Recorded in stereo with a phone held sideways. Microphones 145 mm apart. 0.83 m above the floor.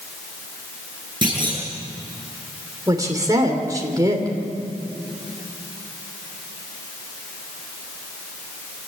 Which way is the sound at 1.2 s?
30° right (ahead or behind).